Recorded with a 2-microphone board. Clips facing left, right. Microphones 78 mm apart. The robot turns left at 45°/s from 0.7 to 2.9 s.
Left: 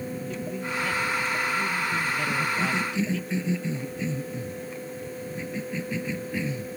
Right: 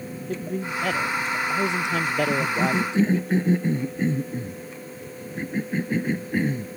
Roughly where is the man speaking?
Ahead right.